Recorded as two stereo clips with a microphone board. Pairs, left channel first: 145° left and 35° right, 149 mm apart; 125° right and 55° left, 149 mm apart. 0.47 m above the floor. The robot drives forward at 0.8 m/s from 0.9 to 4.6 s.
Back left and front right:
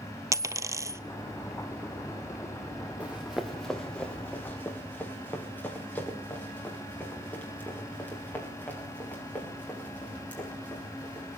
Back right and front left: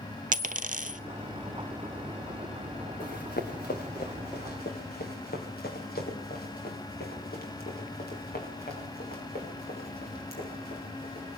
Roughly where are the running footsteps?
Behind right.